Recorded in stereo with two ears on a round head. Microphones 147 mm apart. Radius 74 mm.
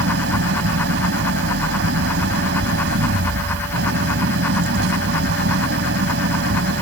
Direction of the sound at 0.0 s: 75° right (ahead or behind).